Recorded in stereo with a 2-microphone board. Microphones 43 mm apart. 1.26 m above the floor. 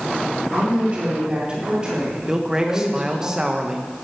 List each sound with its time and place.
0.5 s a woman speaking: 35° right (ahead or behind), 4 m; by 3.3 s 15° right (ahead or behind), 6 m
2.3 s a man speaking: 15° right (ahead or behind), 1.2 m